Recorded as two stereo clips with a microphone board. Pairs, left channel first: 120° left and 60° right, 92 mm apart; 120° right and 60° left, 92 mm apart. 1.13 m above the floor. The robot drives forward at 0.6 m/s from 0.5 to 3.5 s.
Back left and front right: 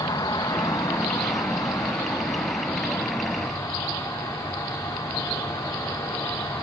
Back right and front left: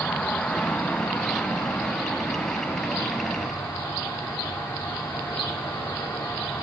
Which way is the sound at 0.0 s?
165° left.